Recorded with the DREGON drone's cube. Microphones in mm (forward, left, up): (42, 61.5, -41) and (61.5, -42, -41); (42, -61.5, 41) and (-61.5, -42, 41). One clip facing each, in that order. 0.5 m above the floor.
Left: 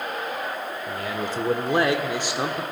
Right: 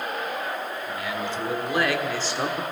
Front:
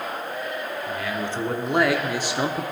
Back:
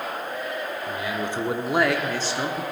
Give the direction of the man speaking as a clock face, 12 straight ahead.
8 o'clock.